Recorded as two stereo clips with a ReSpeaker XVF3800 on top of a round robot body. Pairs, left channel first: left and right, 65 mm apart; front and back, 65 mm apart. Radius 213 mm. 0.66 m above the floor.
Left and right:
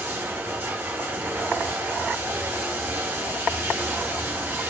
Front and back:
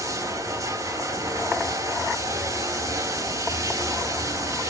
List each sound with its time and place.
0.0 s running water: 150° right, 3.5 m